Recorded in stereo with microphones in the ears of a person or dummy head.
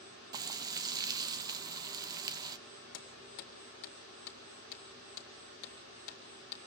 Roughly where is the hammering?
Left.